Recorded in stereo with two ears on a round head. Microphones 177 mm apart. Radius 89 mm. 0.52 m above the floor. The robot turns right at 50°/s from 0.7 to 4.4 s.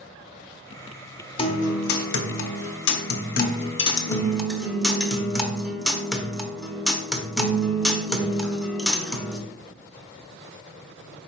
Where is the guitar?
30° left, 0.6 m; by 9.4 s straight behind, 0.6 m.